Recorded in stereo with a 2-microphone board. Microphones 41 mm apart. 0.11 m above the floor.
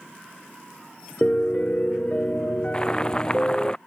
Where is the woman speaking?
No woman speaking in this recording.